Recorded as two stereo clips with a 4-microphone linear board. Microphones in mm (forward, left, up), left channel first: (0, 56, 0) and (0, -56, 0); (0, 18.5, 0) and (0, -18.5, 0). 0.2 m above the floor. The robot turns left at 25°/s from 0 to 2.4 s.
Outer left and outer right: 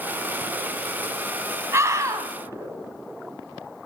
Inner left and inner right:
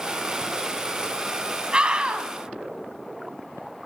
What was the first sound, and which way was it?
A scream, 25° right (ahead or behind).